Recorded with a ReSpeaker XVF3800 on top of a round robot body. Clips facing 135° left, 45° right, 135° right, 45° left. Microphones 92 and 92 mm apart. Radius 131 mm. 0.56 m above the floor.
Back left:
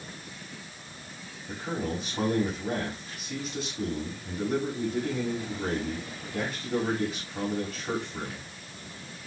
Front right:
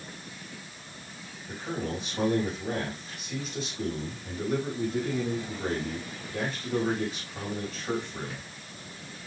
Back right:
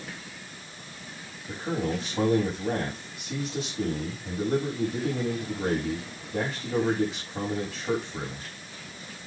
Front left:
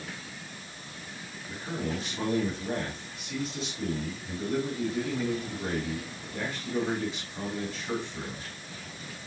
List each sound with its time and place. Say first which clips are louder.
1.5 s a man speaking: back left 1 dB, back right 5 dB; 135° right, 4.5 m